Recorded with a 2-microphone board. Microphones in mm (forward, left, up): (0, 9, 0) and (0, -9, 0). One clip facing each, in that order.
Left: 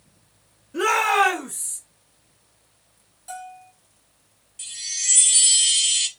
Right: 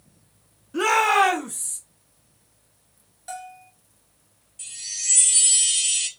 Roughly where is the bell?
Right.